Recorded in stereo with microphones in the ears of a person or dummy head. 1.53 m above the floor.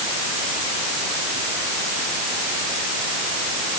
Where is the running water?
No running water in this recording.